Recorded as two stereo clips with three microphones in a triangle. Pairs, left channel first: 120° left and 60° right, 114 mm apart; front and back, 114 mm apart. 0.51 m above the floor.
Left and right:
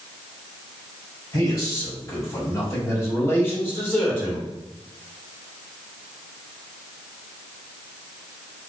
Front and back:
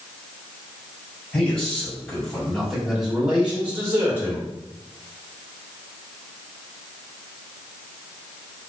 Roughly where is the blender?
I don't hear a blender.